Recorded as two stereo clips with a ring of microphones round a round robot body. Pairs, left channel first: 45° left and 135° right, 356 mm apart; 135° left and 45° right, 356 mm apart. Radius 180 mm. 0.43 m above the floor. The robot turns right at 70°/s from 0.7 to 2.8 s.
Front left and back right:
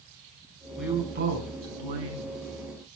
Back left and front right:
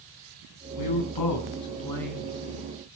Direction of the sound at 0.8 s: 135° left.